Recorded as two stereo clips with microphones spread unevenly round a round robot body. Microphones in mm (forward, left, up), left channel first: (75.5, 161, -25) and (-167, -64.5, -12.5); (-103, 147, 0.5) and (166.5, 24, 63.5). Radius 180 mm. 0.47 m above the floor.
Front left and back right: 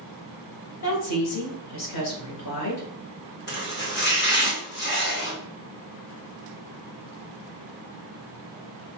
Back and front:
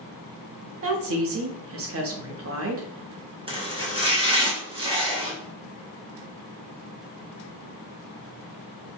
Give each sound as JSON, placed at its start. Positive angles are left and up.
{"t": 0.8, "sound": "a woman speaking", "azimuth_deg": 15, "distance_m": 1.2}
{"t": 3.5, "sound": "chopping", "azimuth_deg": 50, "distance_m": 1.5}